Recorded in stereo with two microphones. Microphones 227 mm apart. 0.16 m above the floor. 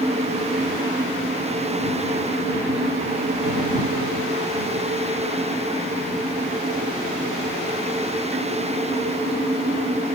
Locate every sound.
Only background noise.